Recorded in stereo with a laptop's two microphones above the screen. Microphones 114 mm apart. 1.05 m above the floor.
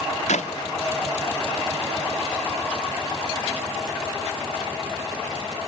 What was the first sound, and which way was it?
A clap, 85° left.